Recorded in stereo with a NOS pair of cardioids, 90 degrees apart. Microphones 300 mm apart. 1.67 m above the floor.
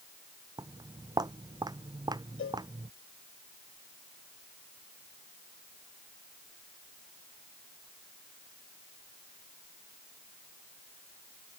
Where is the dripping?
No dripping in this recording.